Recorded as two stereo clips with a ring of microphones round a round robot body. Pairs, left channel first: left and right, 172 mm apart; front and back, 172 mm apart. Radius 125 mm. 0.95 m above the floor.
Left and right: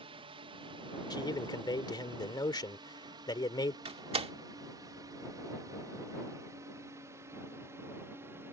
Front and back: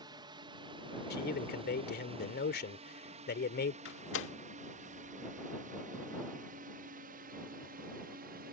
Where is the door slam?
30° right.